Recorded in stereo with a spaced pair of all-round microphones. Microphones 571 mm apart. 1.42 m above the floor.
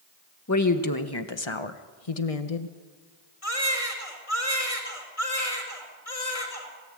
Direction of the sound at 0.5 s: 25° left (ahead or behind).